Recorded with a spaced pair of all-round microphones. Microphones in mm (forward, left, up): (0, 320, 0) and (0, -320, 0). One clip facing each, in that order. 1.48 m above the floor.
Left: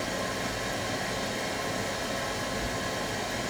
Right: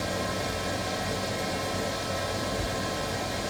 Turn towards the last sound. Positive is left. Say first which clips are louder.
# right 2 dB
turn(degrees=-60)  # may be behind; listen again after turning